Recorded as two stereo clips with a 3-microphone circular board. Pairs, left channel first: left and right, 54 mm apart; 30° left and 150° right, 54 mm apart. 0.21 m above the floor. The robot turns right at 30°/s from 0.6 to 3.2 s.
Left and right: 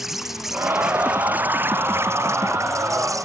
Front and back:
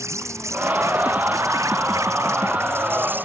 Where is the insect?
175° right; by 3.2 s 95° right.